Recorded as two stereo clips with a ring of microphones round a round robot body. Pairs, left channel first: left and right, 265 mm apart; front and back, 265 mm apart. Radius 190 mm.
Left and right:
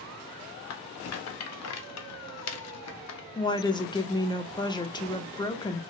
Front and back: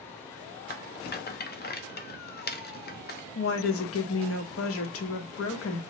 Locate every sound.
0.7 s a rattle: 60° left, 0.6 m
3.4 s a woman speaking: 15° left, 0.7 m